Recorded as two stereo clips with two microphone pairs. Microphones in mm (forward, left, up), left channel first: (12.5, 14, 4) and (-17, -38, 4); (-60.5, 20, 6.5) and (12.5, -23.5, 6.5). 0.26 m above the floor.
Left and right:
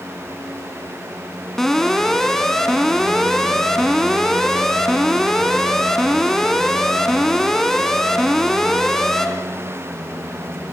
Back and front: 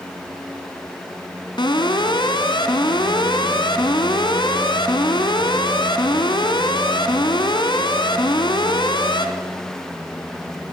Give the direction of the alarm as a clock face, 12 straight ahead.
7 o'clock.